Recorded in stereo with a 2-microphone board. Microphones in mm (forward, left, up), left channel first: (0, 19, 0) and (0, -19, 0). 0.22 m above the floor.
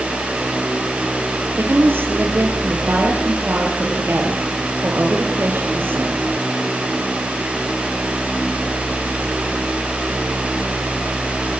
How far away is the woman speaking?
About 4.5 m.